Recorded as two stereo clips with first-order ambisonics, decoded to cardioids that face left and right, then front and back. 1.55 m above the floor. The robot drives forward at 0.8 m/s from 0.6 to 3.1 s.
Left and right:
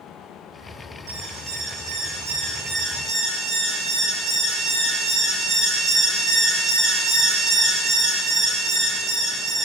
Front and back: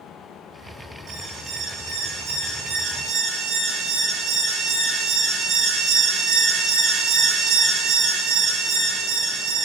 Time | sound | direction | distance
1.1 | an alarm | 120° right | 7 m